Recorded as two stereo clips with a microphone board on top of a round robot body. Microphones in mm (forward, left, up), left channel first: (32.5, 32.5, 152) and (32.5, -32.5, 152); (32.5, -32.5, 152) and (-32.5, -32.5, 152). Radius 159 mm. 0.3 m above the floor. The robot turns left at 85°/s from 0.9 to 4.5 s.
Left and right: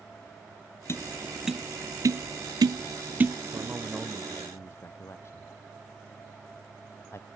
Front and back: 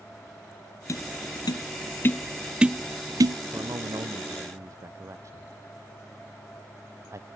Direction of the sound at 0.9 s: 40° left.